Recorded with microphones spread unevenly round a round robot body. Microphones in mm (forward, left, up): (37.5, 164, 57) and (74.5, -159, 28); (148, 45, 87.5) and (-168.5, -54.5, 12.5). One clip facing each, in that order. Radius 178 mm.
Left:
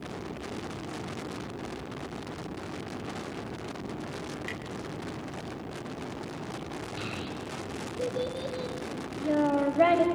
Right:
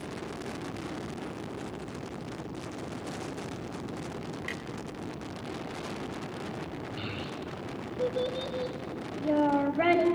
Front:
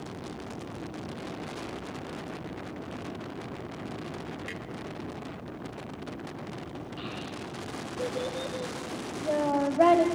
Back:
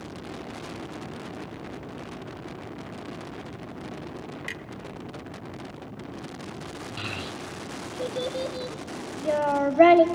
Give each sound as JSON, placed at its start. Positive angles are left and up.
{"t": 4.4, "sound": "a clunk", "azimuth_deg": -160, "distance_m": 0.7}
{"t": 7.0, "sound": "a child speaking", "azimuth_deg": -170, "distance_m": 1.2}